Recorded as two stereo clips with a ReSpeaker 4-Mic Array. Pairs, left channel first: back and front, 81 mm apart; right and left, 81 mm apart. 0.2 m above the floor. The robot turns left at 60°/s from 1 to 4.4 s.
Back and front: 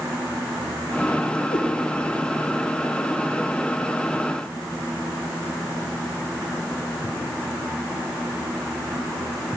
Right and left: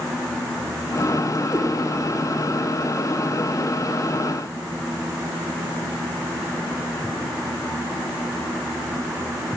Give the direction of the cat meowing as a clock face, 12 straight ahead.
5 o'clock.